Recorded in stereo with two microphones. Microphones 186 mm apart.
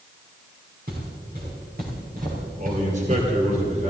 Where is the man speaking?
40° right (ahead or behind), 2.5 m.